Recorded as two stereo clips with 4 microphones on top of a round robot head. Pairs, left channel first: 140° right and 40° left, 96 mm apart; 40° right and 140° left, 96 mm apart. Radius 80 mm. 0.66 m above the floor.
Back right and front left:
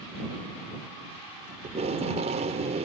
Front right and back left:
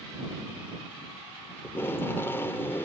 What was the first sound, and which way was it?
Tape being pulled, 30° left.